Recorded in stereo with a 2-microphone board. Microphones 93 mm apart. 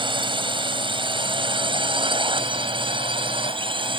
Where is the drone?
65° right (ahead or behind); by 4.0 s 70° right (ahead or behind).